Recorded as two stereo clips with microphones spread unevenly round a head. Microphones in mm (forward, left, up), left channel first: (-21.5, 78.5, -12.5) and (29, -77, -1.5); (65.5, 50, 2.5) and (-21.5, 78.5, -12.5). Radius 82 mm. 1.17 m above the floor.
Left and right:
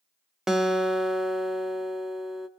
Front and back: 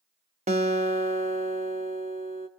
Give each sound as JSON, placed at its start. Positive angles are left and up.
{"t": 0.5, "sound": "a guitar", "azimuth_deg": -160, "distance_m": 1.0}